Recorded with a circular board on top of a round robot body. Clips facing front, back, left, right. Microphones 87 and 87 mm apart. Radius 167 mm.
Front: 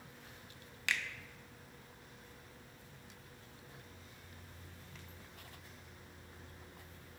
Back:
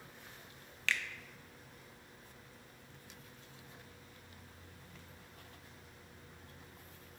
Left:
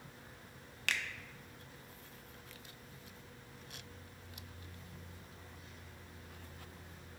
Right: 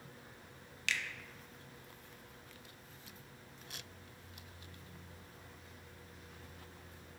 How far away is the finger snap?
About 1.0 m.